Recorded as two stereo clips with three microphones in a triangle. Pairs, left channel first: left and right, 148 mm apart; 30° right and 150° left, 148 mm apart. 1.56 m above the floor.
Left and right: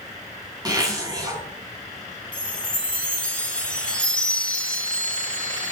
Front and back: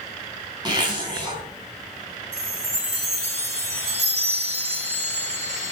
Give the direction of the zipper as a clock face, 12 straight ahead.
5 o'clock.